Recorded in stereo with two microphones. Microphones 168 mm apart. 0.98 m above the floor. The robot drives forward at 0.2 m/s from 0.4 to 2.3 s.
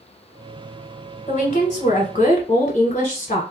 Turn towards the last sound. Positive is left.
turn(degrees=40)  # may be behind; listen again after turning